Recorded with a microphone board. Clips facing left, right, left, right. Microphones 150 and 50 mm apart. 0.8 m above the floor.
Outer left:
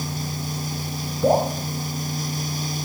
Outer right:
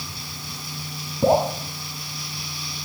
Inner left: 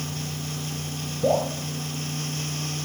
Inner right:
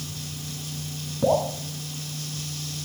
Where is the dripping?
70° right (ahead or behind), 8.5 m.